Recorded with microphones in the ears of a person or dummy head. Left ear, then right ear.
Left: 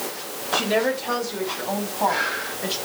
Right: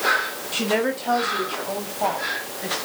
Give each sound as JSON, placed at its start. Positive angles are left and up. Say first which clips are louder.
{"t": 0.5, "sound": "a woman speaking", "louder": "left 2 dB", "side_deg": -20, "distance_m": 1.9}